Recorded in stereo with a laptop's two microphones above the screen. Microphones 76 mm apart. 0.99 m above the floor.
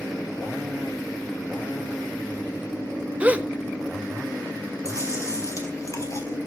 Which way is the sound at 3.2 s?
20° right (ahead or behind).